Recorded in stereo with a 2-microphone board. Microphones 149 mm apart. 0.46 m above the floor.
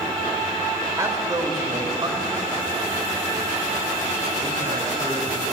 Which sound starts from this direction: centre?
A man speaking, at 1.0 s.